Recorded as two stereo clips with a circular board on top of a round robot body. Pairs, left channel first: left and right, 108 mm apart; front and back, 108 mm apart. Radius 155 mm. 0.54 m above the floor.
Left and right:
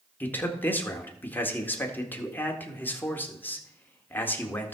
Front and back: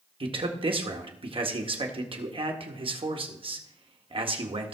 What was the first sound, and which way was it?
A man speaking, 160° left.